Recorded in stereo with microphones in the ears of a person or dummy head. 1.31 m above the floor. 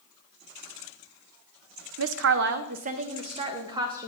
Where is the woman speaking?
70° right (ahead or behind), 0.7 m; by 4.1 s 15° right (ahead or behind), 1.4 m.